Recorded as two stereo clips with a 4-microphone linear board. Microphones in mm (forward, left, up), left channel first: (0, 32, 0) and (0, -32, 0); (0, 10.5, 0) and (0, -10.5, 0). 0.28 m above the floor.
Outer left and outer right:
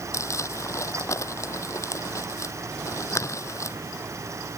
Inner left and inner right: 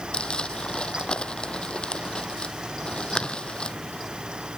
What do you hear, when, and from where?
0.1 s crumpling: 50° left (ahead or behind)